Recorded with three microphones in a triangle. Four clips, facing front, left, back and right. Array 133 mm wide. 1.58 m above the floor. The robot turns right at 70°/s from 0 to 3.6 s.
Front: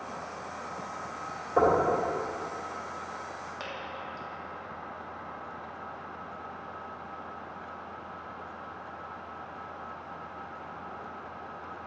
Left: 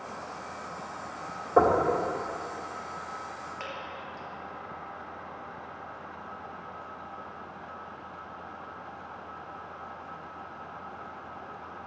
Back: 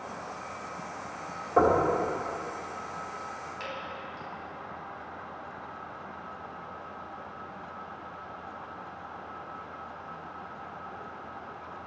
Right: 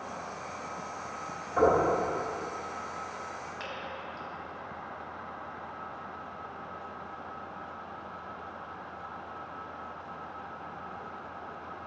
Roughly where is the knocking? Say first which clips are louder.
Left 2 dB, back 1 dB; left.